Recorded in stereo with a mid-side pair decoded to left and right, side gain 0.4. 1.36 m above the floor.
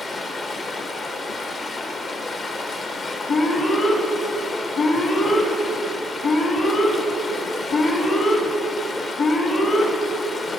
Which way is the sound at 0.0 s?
60° left.